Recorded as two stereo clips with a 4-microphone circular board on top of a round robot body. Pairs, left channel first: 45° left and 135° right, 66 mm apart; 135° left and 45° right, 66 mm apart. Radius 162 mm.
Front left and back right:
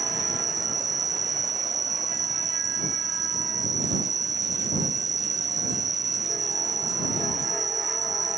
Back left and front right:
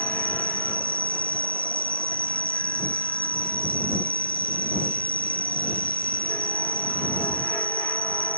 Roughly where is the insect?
Right.